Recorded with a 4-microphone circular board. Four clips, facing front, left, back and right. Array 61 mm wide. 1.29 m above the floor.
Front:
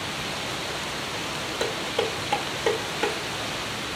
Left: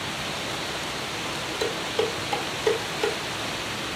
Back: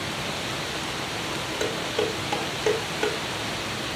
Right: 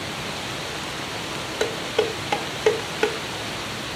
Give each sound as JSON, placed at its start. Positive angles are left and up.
{"t": 1.6, "sound": "dishes clattering", "azimuth_deg": -80, "distance_m": 1.4}